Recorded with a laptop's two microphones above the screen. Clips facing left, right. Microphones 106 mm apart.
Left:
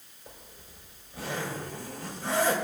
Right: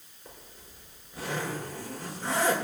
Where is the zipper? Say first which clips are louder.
Even; 35° right (ahead or behind), 7 m.